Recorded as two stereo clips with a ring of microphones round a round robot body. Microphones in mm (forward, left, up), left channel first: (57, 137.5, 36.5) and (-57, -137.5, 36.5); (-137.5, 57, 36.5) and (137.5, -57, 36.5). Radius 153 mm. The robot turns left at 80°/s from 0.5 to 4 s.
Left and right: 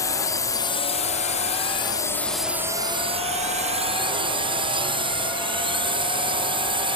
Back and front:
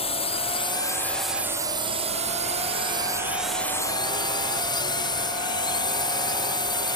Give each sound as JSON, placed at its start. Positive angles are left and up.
{"t": 0.0, "sound": "a drone", "azimuth_deg": 130}